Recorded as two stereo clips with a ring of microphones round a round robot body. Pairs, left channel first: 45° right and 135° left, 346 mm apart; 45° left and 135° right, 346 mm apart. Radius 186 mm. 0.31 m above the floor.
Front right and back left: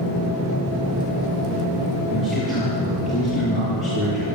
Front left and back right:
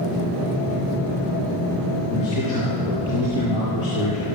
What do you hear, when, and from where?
2.1 s a man speaking: 45° left, 7.5 m